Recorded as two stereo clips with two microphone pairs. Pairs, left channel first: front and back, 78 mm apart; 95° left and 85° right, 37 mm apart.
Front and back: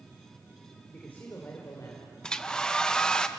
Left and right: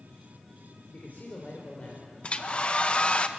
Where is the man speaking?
70° left, 3 m; by 2.1 s 45° left, 3.5 m.